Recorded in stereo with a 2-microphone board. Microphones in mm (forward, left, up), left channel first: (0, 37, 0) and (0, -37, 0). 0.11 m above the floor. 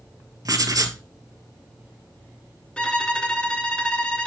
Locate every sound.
0.5 s writing: 55° right (ahead or behind), 0.8 m
2.8 s a violin: 15° left (ahead or behind), 1.1 m